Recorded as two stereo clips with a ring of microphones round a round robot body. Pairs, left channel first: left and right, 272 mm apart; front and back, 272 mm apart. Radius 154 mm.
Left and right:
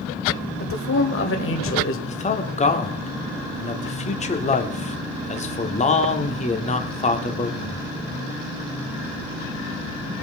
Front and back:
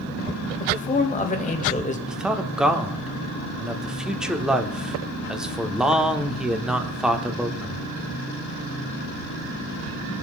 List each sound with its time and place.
0.6 s a man speaking: 60° left, 1.8 m
2.1 s a man speaking: 95° left, 1.1 m